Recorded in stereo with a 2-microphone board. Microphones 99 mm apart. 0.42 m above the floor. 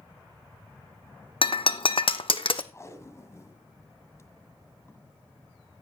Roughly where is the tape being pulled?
Left.